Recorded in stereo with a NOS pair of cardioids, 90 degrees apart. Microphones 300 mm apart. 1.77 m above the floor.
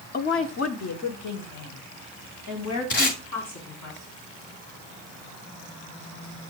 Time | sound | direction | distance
0.1 | a woman speaking | 30° left | 0.9 m
2.9 | tape being pulled | 45° left | 2.5 m